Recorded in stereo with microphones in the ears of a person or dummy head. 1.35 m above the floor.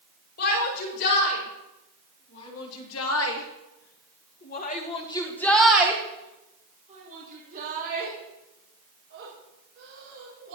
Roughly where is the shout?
Left.